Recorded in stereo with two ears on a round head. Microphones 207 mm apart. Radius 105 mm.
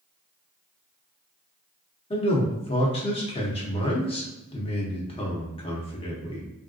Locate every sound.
2.1 s a man speaking: 25° left (ahead or behind), 0.7 m